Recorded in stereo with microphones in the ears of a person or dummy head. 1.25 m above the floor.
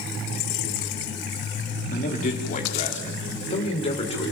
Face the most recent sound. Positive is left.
turn(degrees=35)  # may be behind; listen again after turning